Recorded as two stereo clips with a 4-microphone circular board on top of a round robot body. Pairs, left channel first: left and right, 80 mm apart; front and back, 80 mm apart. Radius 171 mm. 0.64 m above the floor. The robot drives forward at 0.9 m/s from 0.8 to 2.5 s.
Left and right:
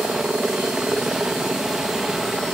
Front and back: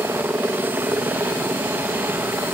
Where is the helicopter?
160° right; by 2.5 s 170° right.